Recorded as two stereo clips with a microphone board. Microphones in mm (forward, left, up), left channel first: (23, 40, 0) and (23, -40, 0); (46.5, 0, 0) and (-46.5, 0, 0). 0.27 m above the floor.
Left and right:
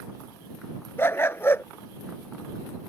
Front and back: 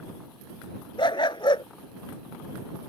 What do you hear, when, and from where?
1.0 s a dog barking: 30° left